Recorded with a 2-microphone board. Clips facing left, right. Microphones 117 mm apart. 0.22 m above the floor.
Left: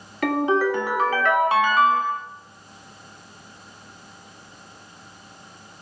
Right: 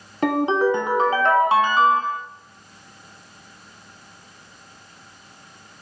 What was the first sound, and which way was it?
A ringtone, 25° right (ahead or behind).